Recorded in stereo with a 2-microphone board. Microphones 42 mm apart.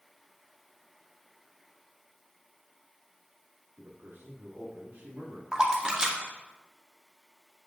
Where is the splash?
20° right (ahead or behind), 0.8 m.